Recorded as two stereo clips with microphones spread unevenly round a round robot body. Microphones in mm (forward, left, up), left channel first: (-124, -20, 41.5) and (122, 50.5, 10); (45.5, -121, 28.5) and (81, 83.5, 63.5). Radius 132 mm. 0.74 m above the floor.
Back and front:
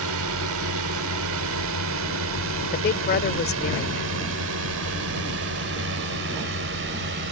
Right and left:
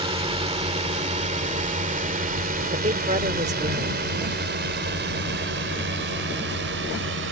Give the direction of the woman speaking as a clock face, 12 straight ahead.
7 o'clock.